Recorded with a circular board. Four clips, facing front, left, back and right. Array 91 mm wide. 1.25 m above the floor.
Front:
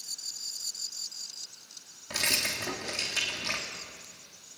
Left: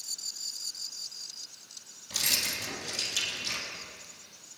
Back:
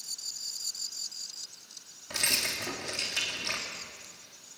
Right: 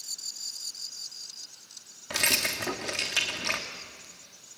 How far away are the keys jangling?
About 2 m.